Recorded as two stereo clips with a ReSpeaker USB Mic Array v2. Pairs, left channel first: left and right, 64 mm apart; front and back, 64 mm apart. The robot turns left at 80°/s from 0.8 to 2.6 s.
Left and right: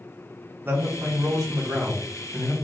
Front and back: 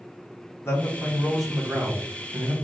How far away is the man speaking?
About 1.8 m.